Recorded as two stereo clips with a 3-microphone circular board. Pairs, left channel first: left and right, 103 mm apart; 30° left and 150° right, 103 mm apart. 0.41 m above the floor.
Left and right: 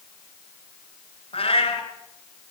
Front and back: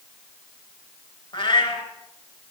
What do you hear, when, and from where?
1.3 s a cat meowing: 65° left, 2 m